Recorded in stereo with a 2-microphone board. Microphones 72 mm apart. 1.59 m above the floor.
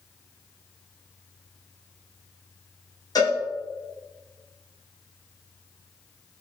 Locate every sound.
3.1 s a cowbell: 60° left (ahead or behind), 0.9 m